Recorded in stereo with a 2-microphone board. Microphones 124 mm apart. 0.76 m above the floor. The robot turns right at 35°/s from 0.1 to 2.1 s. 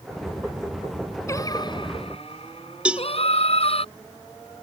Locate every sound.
1.3 s singing: 25° left (ahead or behind); by 3.9 s 55° left (ahead or behind)
2.9 s a cowbell: 10° right (ahead or behind)